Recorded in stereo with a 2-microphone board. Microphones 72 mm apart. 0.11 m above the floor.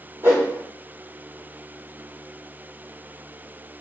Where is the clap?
No clap in this recording.